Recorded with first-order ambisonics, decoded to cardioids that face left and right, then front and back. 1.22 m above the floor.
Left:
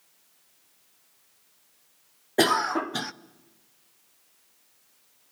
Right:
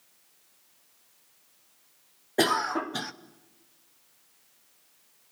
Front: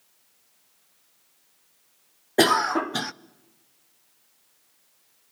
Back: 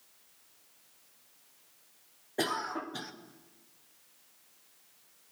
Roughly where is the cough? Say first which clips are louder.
Left 3 dB, front 13 dB; ahead.